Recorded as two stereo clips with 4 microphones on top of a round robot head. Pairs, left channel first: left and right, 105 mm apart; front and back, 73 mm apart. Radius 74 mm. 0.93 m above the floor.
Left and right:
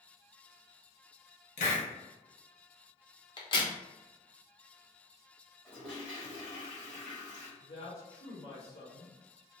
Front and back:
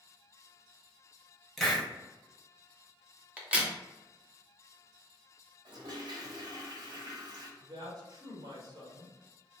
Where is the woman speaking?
150° left, 1.4 m.